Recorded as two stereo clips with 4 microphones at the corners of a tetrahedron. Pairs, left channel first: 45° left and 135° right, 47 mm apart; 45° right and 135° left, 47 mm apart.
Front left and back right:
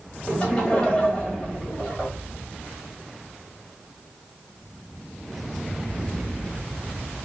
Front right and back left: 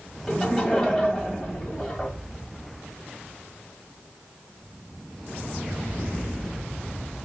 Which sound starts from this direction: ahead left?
Laughter, at 0.3 s.